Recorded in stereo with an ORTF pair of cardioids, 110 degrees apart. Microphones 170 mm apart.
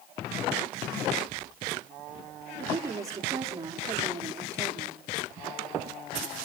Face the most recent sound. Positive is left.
turn(degrees=-20)